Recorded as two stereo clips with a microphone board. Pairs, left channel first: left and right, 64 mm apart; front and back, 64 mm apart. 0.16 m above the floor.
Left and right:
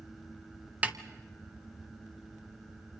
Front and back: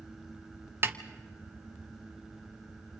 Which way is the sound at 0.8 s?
150° right.